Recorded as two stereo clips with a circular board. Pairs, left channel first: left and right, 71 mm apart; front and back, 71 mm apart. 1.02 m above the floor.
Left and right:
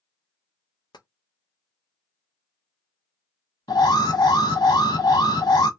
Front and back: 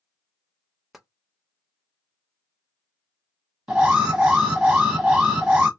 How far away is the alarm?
About 1.4 m.